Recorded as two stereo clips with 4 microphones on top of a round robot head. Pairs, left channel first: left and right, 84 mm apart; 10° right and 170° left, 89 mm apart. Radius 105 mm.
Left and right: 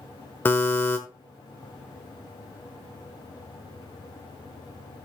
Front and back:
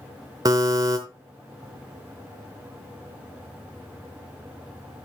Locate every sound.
0.5 s a buzzer: 145° left, 1.0 m